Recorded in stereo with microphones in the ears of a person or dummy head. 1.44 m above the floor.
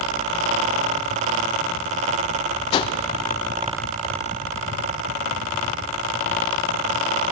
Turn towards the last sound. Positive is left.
turn(degrees=30)  # may be behind; listen again after turning